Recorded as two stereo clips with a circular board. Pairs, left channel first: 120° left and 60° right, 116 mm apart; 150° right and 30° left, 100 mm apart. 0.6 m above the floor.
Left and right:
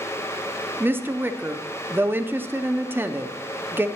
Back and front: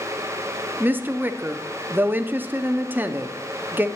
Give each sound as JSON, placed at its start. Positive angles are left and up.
{"t": 0.8, "sound": "a woman speaking", "azimuth_deg": -15, "distance_m": 0.6}